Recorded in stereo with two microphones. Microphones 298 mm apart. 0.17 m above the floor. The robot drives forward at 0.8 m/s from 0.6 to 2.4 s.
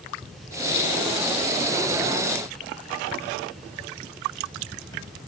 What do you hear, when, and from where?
Only background noise.